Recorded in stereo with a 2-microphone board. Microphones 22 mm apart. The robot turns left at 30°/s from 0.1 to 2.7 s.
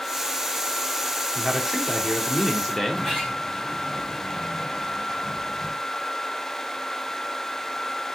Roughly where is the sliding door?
Centre.